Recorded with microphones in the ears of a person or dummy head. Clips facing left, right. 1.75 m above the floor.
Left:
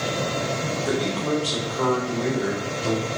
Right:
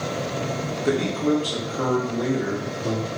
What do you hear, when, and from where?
0.8 s a man speaking: 35° right (ahead or behind), 1.0 m; by 3.1 s 10° right (ahead or behind), 2 m